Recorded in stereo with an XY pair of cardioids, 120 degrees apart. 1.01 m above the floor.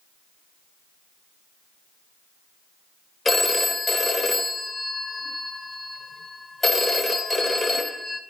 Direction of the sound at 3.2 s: 25° left.